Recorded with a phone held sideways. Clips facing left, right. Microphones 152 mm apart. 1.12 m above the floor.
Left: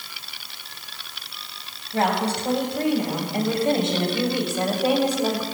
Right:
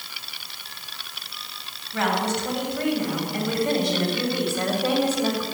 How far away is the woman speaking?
About 8.5 m.